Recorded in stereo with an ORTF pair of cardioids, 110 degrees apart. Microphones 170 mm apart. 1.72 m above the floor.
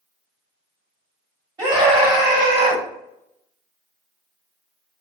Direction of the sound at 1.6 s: 25° right.